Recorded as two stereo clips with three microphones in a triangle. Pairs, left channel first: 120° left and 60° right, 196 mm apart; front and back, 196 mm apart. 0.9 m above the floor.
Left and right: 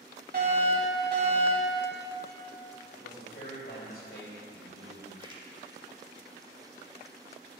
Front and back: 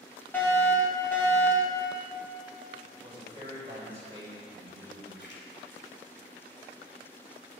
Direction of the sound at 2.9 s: 120° left.